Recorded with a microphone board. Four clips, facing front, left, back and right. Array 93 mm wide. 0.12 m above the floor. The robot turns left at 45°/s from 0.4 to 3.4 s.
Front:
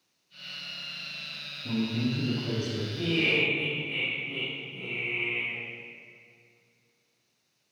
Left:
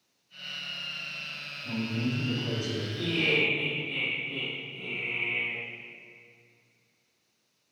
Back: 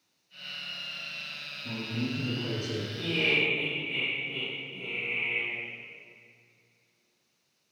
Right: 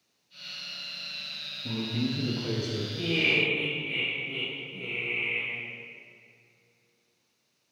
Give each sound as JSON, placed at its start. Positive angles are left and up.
{"t": 1.6, "sound": "a man speaking", "azimuth_deg": -70, "distance_m": 2.5}
{"t": 3.0, "sound": "laughter", "azimuth_deg": -80, "distance_m": 2.5}